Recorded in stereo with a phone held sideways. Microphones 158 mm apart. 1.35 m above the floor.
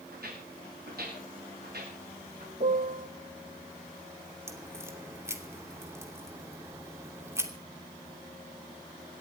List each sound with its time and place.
0.1 s footsteps: 70° right (ahead or behind), 10 m; by 2.5 s 85° right, 10 m
2.6 s a piano: 50° right (ahead or behind), 0.9 m
4.5 s a crack: 15° right (ahead or behind), 2.5 m